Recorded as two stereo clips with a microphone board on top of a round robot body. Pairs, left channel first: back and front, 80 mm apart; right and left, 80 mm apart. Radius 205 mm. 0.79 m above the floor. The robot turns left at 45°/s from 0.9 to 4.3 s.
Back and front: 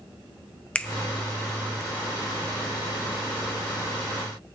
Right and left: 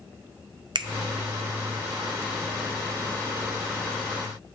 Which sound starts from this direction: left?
A finger snap, at 0.8 s.